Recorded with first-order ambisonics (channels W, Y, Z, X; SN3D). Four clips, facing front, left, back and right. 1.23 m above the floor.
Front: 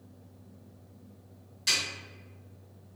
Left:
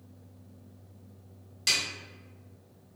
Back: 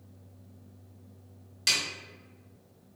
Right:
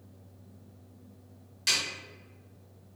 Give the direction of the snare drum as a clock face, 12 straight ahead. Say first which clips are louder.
Left 1 dB, back 1 dB; 6 o'clock.